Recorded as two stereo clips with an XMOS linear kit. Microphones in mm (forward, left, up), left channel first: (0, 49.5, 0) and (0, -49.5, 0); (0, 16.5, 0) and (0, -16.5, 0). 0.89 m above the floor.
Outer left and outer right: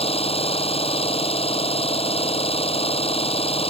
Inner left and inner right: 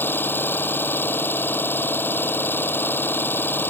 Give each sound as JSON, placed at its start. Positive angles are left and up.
{"t": 0.0, "sound": "an engine running", "side_deg": 85}